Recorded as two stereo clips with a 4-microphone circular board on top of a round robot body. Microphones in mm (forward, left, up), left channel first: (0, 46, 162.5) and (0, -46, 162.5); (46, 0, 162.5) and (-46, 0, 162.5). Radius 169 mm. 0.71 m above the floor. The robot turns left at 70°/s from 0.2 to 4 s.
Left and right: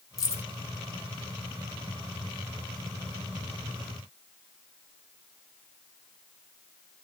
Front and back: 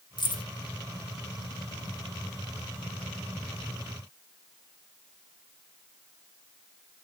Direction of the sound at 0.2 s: 40° left.